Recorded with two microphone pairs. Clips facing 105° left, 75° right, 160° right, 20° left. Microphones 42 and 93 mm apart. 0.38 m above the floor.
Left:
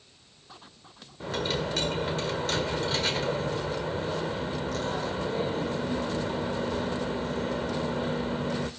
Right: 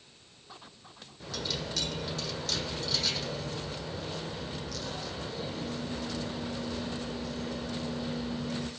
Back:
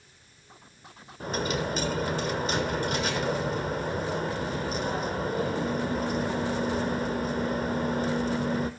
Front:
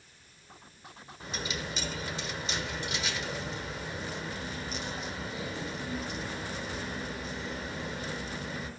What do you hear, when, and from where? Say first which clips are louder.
1.2 s a dropped coin: left 7 dB, back 9 dB; 160° left, 1.3 m